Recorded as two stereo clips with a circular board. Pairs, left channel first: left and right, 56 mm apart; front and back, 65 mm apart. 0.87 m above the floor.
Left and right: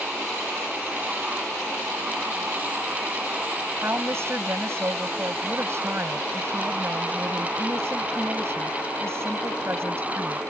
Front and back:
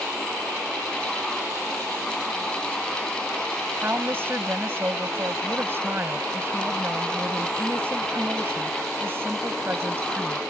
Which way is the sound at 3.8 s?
125° right.